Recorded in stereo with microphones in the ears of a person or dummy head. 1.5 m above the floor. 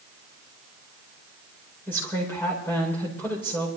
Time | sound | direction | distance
1.9 | a woman speaking | 15° left (ahead or behind) | 4.5 m